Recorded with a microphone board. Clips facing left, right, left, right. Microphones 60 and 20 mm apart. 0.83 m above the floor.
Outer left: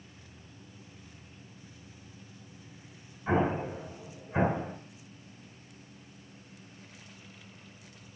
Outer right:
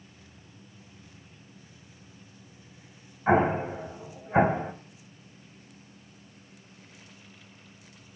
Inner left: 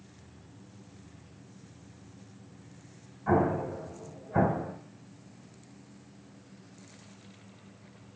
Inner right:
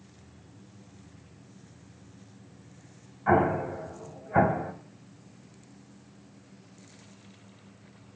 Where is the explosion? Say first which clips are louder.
Outer right 5 dB, inner right 3 dB; 35° right (ahead or behind), 1.5 m.